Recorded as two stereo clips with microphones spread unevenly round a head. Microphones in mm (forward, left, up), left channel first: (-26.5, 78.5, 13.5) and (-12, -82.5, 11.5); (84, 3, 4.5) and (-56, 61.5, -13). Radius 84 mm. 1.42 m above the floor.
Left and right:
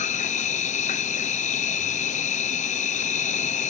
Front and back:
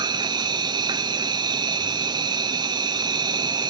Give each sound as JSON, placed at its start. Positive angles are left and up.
{"t": 0.0, "sound": "an insect", "azimuth_deg": 115}